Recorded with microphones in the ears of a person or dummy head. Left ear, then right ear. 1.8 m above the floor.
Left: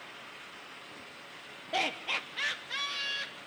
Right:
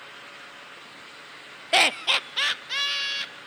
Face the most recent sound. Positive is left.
turn(degrees=-45)  # may be behind; listen again after turning